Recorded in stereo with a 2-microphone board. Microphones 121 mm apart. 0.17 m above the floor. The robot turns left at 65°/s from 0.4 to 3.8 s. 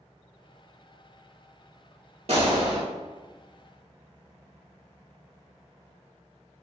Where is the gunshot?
120° right, 1.0 m; by 2.8 s 155° right, 1.0 m.